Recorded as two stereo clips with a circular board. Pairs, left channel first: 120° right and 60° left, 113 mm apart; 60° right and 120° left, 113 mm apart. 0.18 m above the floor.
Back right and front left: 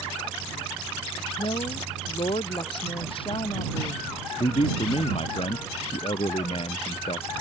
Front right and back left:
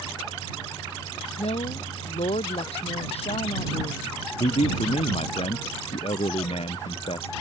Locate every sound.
1.4 s a woman speaking: 85° right
4.4 s a man speaking: 90° right